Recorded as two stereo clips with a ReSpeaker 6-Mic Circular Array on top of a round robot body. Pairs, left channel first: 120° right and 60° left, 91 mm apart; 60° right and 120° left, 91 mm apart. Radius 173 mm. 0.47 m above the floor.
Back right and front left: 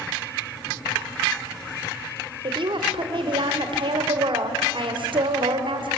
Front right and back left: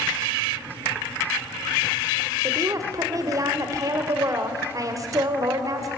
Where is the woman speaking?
70° left, 2.5 m.